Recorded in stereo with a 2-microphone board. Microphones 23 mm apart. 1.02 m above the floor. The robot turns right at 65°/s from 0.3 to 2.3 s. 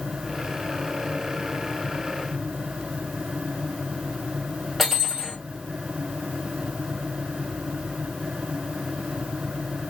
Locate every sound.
4.8 s cutlery clinking: centre (ahead or behind), 1.3 m